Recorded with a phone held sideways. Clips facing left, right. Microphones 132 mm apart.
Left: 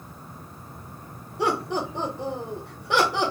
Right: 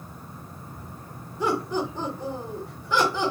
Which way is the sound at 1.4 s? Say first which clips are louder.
Even; 75° left (ahead or behind).